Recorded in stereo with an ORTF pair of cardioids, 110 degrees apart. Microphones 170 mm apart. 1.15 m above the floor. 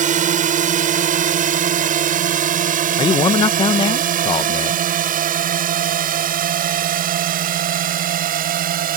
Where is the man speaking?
30° left.